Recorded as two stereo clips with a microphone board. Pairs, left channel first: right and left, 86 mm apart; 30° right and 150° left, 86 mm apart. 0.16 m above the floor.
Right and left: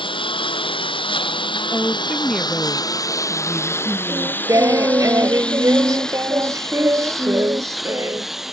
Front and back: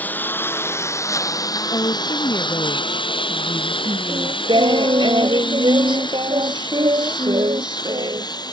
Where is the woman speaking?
5° left.